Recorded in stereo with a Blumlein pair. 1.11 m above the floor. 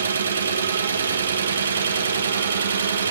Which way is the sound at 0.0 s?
70° right.